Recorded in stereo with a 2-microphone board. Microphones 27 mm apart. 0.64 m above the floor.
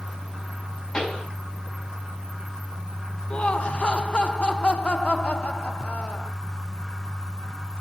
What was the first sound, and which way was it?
A pop, 30° left (ahead or behind).